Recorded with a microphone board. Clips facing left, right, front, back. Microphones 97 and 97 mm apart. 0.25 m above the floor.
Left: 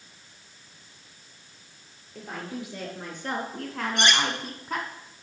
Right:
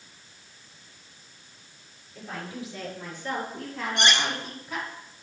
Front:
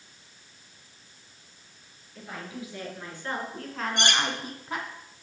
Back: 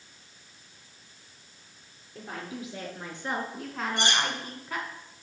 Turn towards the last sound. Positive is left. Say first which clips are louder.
# left 1 dB, front 1 dB
turn(degrees=0)